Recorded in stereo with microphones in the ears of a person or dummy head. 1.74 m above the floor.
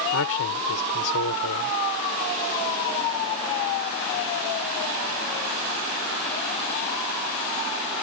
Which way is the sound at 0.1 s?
75° left (ahead or behind).